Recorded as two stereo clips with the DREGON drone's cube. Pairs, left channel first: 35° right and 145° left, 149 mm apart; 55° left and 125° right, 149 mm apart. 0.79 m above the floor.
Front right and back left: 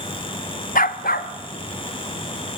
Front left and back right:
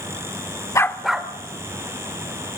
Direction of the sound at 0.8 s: 10° right.